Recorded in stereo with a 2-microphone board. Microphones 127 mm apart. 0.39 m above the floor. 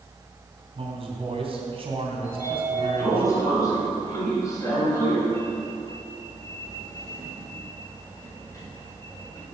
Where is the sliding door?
25° left (ahead or behind), 2.5 m.